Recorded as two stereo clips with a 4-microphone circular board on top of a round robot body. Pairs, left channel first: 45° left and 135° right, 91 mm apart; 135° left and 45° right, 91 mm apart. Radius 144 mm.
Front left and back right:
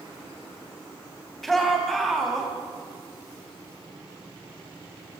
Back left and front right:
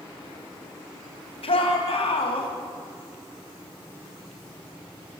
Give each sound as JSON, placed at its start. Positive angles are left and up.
{"t": 1.4, "sound": "a shout", "azimuth_deg": 135, "distance_m": 3.5}